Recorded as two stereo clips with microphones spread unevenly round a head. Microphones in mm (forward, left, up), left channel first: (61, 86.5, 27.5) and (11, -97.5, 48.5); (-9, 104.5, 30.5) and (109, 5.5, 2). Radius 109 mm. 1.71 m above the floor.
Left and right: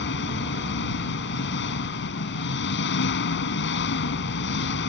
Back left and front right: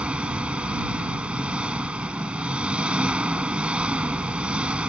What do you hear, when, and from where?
0.0 s an engine running: 45° left